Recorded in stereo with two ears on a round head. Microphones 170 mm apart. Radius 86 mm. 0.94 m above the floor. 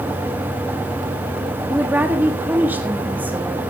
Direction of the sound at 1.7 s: 10° right (ahead or behind).